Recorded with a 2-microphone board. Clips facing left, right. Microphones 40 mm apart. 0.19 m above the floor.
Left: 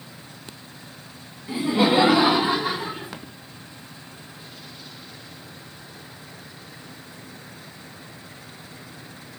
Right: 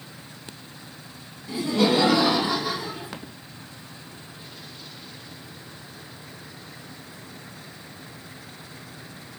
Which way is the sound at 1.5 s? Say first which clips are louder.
Left 2 dB; 25° left (ahead or behind).